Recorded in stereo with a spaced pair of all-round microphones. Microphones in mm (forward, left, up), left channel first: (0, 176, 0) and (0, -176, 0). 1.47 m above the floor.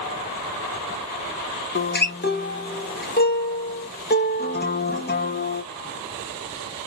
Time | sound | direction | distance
1.8 | a guitar | 30° left (ahead or behind) | 1.0 m